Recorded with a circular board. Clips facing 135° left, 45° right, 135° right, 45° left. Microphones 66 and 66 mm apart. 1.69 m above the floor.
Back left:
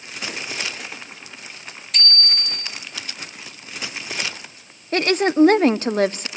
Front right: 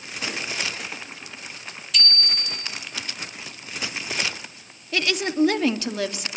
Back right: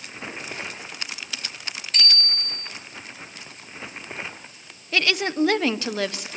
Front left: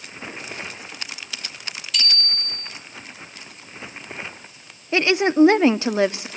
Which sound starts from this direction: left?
A woman speaking, at 4.9 s.